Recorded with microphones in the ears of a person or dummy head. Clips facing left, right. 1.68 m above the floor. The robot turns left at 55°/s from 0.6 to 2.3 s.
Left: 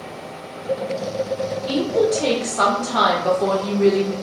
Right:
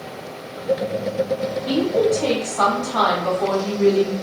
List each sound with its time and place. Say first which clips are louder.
1.7 s a woman speaking: right 1 dB; 170° right, 0.7 m; by 4.1 s 155° left, 0.7 m